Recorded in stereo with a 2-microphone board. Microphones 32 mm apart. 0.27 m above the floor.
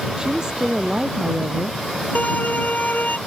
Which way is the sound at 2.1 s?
60° left (ahead or behind).